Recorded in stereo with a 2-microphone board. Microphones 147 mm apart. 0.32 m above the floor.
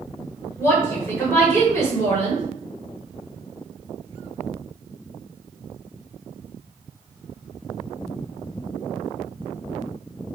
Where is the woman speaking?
20° left (ahead or behind), 1.3 m.